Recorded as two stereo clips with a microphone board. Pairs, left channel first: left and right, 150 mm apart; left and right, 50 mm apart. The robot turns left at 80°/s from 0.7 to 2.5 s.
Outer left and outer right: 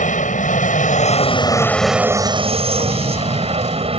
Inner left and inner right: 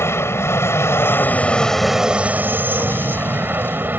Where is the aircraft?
95° left; by 4.0 s 50° right.